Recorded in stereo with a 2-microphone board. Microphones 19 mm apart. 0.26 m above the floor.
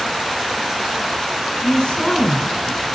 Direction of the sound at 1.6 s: 65° left (ahead or behind).